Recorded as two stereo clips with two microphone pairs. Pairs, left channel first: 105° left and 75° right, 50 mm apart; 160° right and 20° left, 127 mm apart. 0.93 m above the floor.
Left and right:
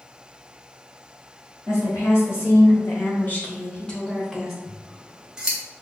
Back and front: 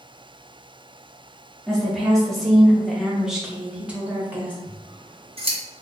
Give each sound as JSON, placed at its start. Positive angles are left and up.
{"t": 1.7, "sound": "a woman speaking", "azimuth_deg": 115, "distance_m": 1.5}
{"t": 4.6, "sound": "scissors", "azimuth_deg": -5, "distance_m": 0.8}